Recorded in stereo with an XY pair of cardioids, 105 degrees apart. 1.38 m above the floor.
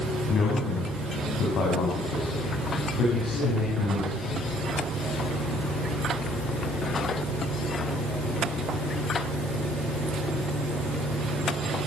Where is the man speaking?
65° left, 10 m; by 4.5 s 80° left, 8 m.